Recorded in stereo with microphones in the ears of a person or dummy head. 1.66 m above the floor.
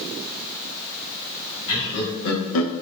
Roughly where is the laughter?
Left.